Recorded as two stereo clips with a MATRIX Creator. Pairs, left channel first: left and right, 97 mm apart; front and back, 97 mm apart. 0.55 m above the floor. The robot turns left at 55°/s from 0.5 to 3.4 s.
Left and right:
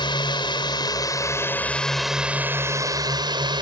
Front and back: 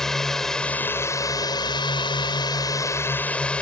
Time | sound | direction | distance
0.0 | a drone | 85° left | ?